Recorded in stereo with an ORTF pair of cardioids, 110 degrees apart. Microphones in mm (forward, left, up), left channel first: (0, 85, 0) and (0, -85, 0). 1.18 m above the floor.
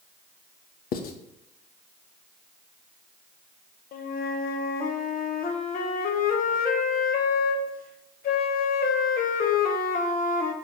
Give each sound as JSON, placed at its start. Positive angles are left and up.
{"t": 0.9, "sound": "writing", "azimuth_deg": 60, "distance_m": 0.8}
{"t": 3.9, "sound": "a flute", "azimuth_deg": 60, "distance_m": 0.9}